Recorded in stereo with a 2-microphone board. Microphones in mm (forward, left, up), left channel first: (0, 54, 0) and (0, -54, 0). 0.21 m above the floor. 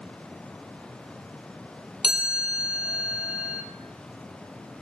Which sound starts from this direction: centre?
A chime, at 2.0 s.